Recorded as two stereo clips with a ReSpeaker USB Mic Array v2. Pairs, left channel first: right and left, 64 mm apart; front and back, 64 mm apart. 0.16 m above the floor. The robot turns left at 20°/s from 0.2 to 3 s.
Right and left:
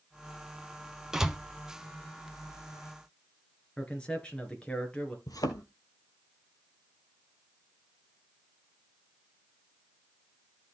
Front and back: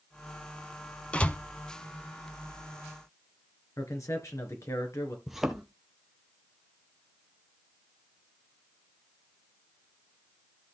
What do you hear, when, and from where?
1.1 s a door slam: 25° left, 0.9 m; by 1.4 s 20° left, 0.9 m
3.8 s a man speaking: 15° right, 3 m
5.3 s a thud: 95° right, 1.7 m